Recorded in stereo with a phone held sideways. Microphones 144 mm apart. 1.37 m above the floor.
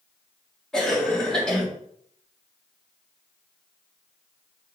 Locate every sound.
0.7 s a cough: 5° left (ahead or behind), 3.5 m